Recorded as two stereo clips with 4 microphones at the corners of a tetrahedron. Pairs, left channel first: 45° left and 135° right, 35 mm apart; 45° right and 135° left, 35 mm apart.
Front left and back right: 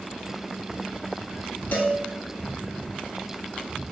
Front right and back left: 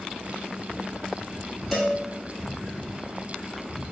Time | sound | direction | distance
1.7 | a cowbell | 45° left | 0.9 m